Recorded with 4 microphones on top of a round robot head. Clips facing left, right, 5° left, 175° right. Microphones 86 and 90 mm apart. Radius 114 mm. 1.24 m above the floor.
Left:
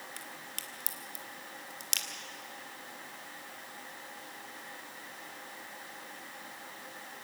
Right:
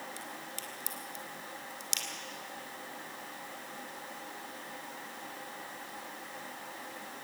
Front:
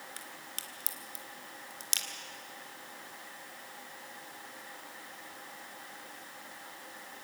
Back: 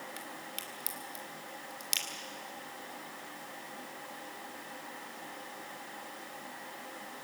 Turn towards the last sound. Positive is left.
turn(degrees=60)